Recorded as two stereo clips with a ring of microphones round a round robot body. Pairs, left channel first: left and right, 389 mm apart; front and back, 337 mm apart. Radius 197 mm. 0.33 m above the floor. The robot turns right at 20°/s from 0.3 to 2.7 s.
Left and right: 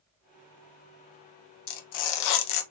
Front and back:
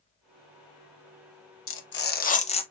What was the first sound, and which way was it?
Tearing paper, 55° left.